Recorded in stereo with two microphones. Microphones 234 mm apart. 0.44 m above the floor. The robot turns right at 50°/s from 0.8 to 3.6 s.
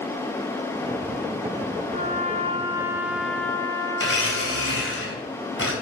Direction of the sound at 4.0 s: 60° left (ahead or behind).